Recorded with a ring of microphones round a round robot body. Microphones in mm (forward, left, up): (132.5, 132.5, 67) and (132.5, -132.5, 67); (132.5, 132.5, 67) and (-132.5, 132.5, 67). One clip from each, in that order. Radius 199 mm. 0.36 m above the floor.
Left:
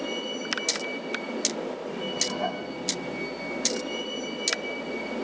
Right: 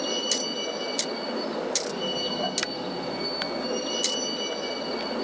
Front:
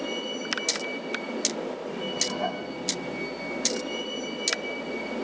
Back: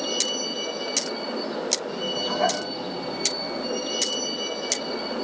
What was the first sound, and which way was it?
A vehicle, 140° right.